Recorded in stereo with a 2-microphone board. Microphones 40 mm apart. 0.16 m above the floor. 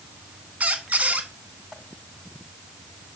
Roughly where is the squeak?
Right.